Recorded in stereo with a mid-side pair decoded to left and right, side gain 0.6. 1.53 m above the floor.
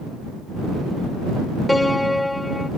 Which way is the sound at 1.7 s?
10° left.